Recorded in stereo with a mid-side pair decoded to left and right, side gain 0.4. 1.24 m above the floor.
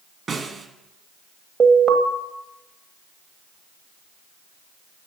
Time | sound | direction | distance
0.3 | a snare drum | 50° right | 1.7 m
1.6 | an alarm | 50° right | 1.2 m